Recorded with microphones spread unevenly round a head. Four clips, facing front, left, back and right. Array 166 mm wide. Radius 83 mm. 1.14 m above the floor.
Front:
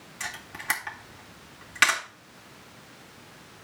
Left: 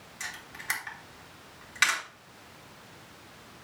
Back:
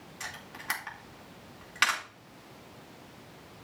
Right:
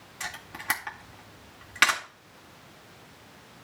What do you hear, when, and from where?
0.2 s a camera shutter: 60° right, 2.5 m